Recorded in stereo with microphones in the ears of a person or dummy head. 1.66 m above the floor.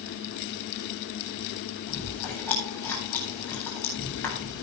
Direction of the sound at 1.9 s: 10° left (ahead or behind).